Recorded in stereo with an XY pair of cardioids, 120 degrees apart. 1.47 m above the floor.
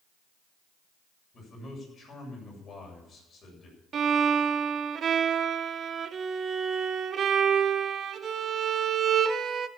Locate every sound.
1.3 s a man speaking: 40° left, 7.5 m
3.9 s a violin: 45° right, 1.0 m